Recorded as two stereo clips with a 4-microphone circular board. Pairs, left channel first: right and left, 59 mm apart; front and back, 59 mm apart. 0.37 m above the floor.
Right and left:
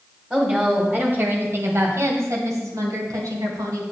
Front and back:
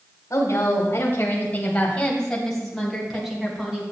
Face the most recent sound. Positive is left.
turn(degrees=100)